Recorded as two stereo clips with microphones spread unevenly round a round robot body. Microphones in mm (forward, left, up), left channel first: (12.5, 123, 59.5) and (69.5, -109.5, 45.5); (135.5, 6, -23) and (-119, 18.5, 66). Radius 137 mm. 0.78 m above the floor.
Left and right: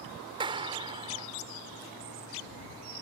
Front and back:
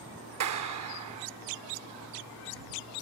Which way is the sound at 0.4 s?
150° right.